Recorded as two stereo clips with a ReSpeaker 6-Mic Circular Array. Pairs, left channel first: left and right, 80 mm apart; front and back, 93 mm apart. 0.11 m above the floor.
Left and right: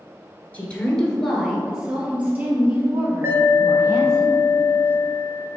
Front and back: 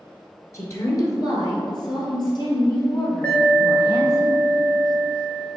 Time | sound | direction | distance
0.5 | a woman speaking | 30° left | 1.6 m
3.2 | an alarm | 60° right | 1.4 m